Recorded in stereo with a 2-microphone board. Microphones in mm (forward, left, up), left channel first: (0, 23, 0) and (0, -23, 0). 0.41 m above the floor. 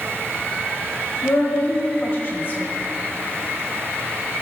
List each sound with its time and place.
1.2 s a woman speaking: 45° left (ahead or behind), 1.6 m